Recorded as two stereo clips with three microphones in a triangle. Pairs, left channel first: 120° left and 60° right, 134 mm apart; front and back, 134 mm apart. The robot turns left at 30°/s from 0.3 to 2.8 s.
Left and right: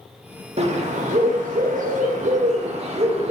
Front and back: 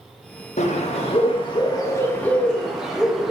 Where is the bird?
25° right, 1.1 m; by 3.3 s 95° right, 1.1 m.